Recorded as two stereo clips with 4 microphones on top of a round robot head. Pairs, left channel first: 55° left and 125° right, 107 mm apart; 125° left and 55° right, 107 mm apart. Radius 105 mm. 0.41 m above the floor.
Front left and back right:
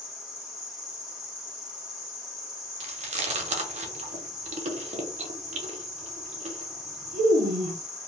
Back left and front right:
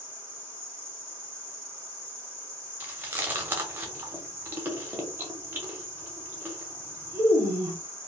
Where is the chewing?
130° right, 0.5 m.